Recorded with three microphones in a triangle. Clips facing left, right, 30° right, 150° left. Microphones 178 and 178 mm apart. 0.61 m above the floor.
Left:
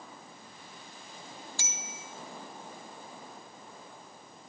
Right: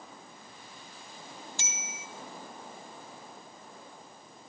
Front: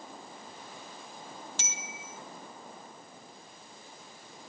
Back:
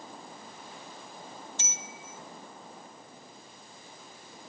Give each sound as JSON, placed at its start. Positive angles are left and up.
{"t": 1.6, "sound": "a bicycle bell", "azimuth_deg": -20, "distance_m": 5.0}